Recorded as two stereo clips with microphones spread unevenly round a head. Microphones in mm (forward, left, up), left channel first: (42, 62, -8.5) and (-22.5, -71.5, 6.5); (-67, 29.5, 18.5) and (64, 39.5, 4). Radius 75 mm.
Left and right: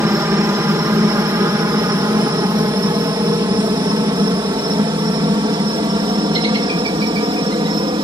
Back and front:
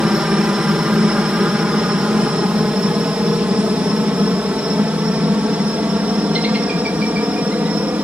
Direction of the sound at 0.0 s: 65° right.